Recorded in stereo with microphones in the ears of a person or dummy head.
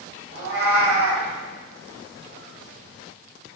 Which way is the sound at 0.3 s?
65° right (ahead or behind).